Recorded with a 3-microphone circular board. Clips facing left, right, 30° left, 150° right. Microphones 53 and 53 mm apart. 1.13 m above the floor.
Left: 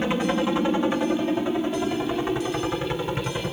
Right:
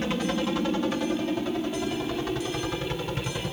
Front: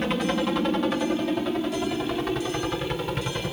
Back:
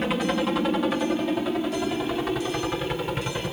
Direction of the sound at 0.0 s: 125° left.